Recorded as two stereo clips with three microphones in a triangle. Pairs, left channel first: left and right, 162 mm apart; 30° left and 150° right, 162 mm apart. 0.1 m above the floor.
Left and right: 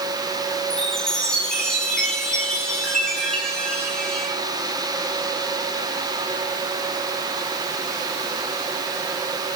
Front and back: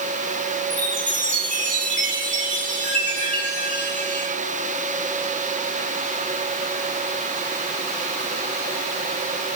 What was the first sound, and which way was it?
A chime, 175° left.